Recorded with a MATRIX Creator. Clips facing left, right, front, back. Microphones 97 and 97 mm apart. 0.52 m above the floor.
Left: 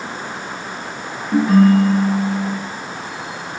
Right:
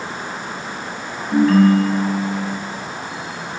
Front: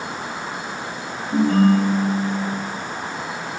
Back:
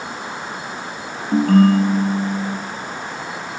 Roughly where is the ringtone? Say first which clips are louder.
Even, back 3 dB; behind.